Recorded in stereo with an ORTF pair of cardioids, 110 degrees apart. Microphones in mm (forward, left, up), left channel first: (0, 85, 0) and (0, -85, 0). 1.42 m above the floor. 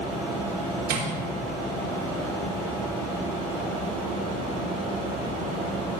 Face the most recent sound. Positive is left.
turn(degrees=-65)